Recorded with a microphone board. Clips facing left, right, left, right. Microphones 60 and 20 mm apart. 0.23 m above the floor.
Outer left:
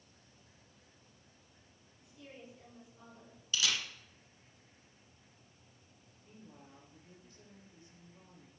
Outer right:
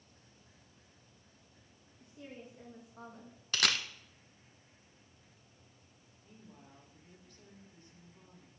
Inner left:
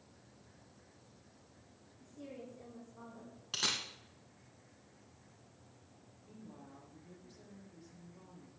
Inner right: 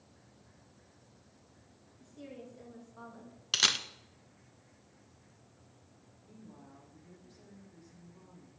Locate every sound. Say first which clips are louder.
2.0 s a woman speaking: outer right 3 dB, inner right 1 dB; 45° right (ahead or behind), 3 m; by 3.4 s 60° right (ahead or behind), 2 m
3.5 s a camera shutter: outer right 3 dB, inner right 7 dB; 60° right (ahead or behind), 0.8 m
6.2 s a woman speaking: outer left 1 dB, even; 25° left (ahead or behind), 5.5 m